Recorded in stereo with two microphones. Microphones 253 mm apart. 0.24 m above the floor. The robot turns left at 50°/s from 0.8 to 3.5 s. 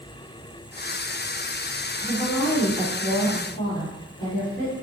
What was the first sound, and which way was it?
A woman speaking, 160° left.